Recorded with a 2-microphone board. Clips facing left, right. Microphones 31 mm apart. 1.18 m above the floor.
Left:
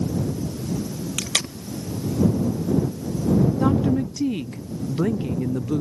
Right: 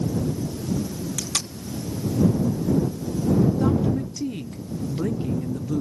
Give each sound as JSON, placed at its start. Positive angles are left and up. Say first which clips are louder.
{"t": 1.2, "sound": "tape being pulled", "louder": "left 4 dB", "side_deg": 65}
{"t": 3.6, "sound": "a woman speaking", "louder": "left 2 dB", "side_deg": 25}